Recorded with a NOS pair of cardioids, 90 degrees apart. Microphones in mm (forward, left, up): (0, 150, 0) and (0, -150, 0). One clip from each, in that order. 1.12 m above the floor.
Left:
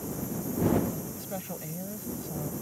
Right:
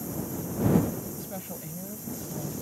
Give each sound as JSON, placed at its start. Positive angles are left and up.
{"t": 1.2, "sound": "a woman speaking", "azimuth_deg": 20}